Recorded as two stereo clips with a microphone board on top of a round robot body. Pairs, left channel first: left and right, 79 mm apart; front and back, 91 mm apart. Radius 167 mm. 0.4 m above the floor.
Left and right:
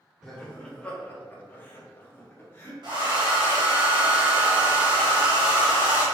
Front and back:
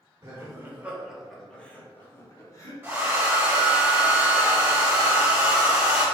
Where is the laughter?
165° left, 1.4 m; by 2.7 s 35° left, 1.7 m.